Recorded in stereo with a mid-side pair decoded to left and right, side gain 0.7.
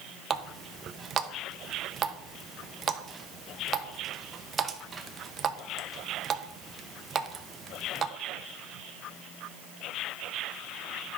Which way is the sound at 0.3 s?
30° right.